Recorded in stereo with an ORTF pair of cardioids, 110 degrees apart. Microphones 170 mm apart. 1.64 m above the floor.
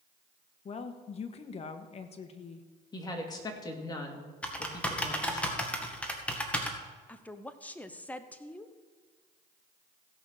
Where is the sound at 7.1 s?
10° left, 0.9 m.